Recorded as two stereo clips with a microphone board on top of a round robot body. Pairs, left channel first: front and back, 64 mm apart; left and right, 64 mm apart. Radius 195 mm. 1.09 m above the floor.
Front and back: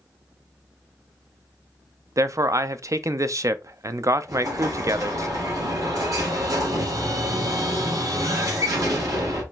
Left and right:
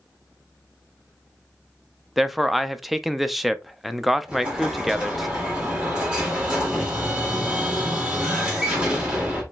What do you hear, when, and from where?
2.2 s a man speaking: straight behind, 0.5 m
4.3 s an explosion: 165° right, 1.6 m